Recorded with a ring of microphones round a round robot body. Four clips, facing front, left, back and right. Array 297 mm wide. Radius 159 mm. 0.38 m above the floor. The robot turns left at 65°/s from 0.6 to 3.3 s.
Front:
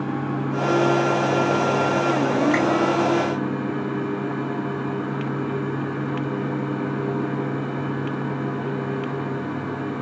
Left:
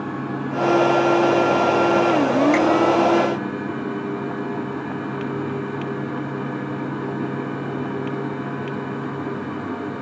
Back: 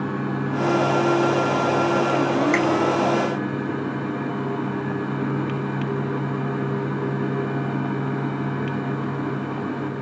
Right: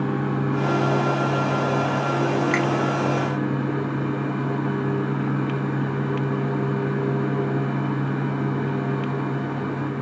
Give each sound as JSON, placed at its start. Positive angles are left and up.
{"t": 2.5, "sound": "a finger snap", "azimuth_deg": -160, "distance_m": 1.8}